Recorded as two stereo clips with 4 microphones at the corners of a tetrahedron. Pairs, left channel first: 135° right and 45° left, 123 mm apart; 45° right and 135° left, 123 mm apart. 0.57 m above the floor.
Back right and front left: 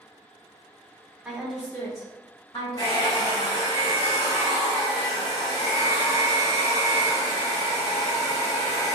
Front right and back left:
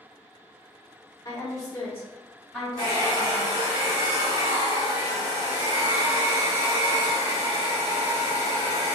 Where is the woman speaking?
35° right, 0.8 m; by 3.5 s 145° right, 1.2 m.